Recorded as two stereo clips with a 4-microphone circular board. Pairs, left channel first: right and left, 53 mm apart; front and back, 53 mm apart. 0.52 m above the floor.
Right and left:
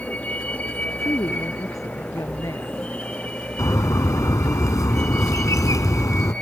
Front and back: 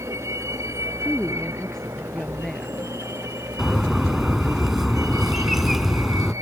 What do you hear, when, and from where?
0.0 s a vehicle: 155° right; by 6.4 s 160° right
1.0 s a woman speaking: 80° right
3.6 s a bird: 95° right